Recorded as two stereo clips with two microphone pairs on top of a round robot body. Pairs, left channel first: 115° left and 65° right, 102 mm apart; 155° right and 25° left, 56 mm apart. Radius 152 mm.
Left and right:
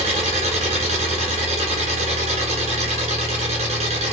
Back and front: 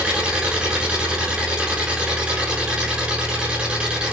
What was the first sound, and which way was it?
An engine running, 45° right.